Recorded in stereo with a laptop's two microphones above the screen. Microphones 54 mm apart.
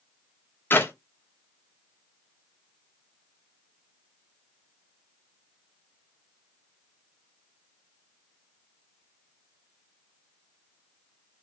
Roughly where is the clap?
Left.